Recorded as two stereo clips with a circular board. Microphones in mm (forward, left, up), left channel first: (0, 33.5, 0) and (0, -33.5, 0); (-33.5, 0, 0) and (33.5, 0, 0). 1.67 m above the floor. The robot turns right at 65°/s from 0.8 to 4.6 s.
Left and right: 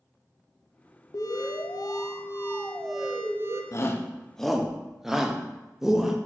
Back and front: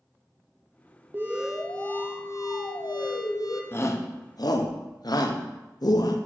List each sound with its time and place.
1.1 s an alarm: 65° left, 0.7 m; by 3.6 s 135° right, 0.7 m
3.7 s a shout: 125° left, 0.8 m; by 6.2 s 175° right, 0.8 m